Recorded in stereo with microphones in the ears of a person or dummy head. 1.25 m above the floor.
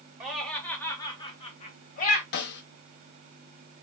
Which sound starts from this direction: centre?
Laughter, at 0.2 s.